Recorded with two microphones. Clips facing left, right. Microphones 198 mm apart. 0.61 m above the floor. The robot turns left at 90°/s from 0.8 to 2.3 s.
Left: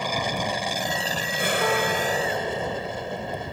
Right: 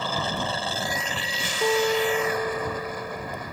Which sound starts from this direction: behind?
An aircraft, at 0.0 s.